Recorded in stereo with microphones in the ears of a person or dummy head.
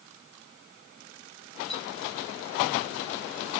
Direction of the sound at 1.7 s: 5° left (ahead or behind).